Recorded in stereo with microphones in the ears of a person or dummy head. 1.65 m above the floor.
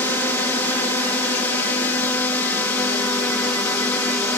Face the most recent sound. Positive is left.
turn(degrees=10)  # may be behind; listen again after turning